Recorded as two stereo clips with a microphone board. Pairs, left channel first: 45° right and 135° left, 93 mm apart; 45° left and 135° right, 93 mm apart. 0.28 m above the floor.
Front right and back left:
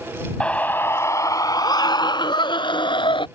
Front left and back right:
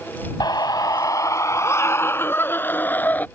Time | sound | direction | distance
0.4 | a scream | 30° left | ?